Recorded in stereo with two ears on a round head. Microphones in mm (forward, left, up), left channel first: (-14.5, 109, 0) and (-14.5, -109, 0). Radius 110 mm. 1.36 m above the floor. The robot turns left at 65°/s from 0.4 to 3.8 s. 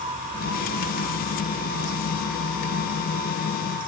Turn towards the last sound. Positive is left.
No sound to turn to.